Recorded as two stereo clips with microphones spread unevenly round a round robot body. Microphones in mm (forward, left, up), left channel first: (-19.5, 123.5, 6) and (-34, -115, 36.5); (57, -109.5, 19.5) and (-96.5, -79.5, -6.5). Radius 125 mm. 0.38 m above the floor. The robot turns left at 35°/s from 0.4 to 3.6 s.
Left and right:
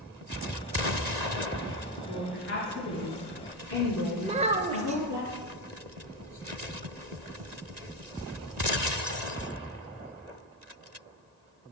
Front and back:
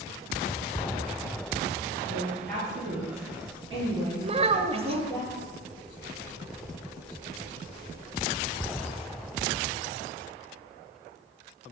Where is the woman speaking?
135° left, 4.5 m; by 5.2 s 85° left, 4.5 m.